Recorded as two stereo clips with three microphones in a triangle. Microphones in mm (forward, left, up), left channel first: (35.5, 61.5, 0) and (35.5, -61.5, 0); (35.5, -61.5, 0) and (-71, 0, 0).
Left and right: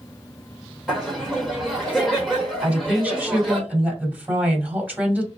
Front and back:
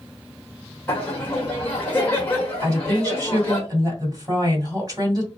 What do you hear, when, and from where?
0.9 s laughter: straight ahead, 1.0 m
2.6 s a woman speaking: 165° right, 1.6 m